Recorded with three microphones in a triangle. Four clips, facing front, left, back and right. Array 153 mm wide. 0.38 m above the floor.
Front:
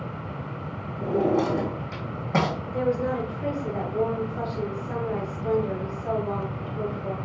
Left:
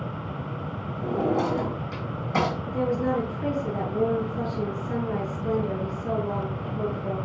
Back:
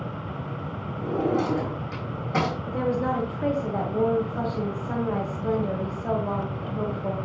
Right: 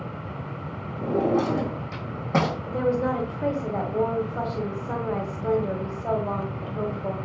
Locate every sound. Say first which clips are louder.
1.0 s a drawer: right 2 dB, front 2 dB; 60° right, 4.5 m
2.7 s a woman speaking: right 1 dB, even; 115° right, 1.7 m